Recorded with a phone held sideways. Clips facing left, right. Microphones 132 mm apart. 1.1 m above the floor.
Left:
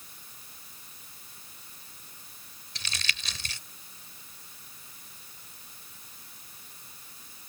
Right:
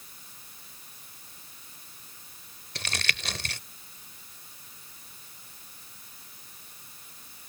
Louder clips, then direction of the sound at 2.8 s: Right 5 dB; 65° right (ahead or behind).